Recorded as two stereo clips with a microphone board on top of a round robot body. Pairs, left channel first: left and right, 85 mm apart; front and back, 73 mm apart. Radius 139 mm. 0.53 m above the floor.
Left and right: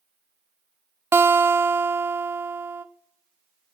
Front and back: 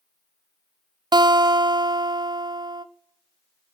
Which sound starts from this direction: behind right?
A guitar, at 1.1 s.